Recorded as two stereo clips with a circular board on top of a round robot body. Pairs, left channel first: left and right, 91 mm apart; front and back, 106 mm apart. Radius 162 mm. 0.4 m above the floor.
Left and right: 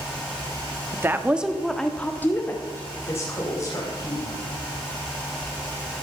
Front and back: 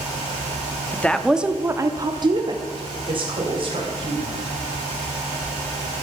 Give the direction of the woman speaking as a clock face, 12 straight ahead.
2 o'clock.